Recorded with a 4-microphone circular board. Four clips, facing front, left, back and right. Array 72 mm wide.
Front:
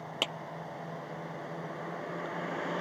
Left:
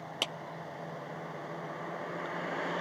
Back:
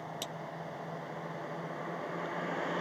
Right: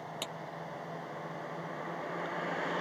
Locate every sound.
0.2 s a clap: 20° left